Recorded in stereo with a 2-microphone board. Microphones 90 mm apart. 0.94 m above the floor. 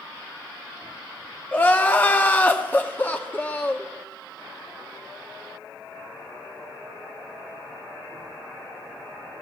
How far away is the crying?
About 0.6 m.